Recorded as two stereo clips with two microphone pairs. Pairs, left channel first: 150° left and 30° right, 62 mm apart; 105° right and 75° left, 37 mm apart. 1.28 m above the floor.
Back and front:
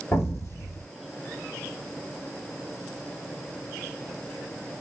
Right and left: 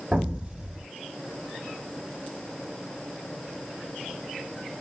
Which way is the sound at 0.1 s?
135° left.